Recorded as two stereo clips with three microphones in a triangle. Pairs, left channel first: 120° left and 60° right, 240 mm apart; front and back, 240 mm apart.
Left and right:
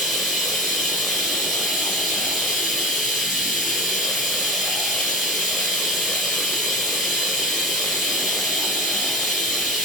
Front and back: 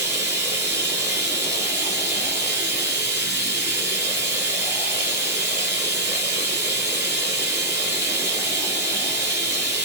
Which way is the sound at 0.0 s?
150° right.